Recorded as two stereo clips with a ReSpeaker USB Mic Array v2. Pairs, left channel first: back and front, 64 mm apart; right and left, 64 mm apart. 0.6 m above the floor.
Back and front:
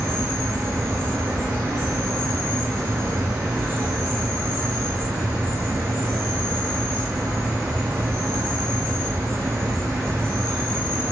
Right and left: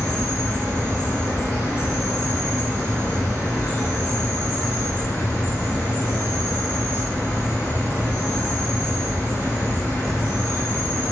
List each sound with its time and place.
0.0 s an insect: 105° right, 1.5 m